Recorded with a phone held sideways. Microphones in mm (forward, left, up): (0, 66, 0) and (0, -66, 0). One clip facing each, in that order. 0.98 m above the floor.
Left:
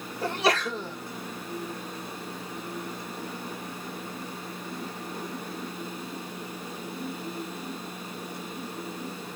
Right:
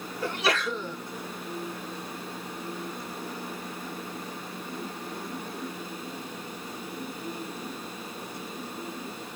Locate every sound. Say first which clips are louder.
0.2 s a sneeze: left 2 dB; 40° left (ahead or behind), 2 m